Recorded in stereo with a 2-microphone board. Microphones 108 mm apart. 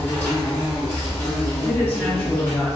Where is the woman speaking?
20° left (ahead or behind), 0.8 m.